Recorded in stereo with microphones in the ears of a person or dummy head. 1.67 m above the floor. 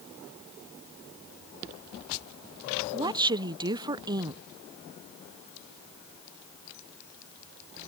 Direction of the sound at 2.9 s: 20° right (ahead or behind).